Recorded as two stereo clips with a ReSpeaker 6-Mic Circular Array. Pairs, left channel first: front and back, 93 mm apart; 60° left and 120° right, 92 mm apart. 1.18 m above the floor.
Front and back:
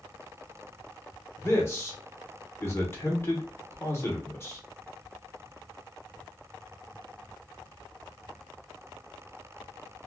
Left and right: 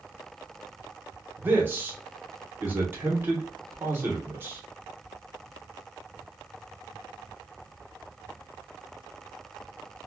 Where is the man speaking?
55° right, 1.1 m.